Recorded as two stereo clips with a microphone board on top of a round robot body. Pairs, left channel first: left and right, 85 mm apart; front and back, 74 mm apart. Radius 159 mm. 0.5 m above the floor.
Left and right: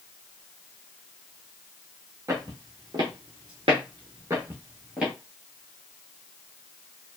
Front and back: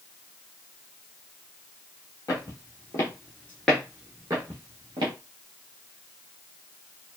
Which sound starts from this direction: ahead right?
Footsteps, at 2.3 s.